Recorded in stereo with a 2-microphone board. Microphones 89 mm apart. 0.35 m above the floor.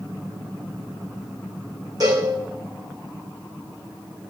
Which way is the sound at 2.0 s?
45° right (ahead or behind).